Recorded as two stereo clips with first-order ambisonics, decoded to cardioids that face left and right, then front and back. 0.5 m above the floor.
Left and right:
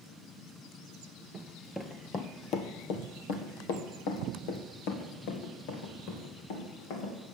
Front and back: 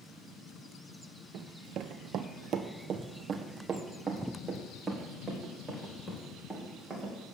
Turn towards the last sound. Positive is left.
turn(degrees=95)